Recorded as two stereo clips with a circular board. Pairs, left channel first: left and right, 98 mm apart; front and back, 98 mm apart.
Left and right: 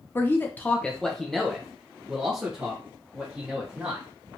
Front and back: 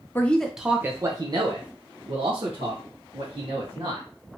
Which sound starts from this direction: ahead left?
A man speaking, at 0.1 s.